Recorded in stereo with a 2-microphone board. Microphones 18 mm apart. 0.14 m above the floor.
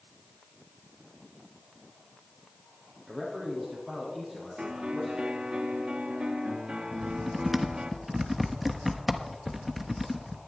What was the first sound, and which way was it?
A man speaking, 5° right (ahead or behind).